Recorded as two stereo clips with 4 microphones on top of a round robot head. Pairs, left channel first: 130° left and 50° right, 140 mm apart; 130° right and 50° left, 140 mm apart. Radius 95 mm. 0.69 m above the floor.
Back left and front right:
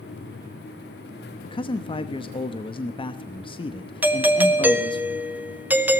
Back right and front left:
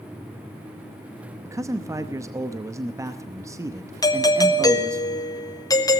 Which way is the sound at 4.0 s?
115° right.